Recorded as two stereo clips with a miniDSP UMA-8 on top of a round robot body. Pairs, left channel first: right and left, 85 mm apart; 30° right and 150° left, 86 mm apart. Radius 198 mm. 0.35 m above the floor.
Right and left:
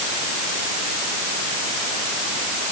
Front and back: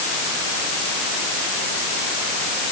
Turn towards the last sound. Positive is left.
No sound to turn to.